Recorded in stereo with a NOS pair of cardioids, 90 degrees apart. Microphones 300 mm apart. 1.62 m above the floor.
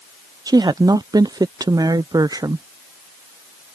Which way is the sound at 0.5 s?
10° right.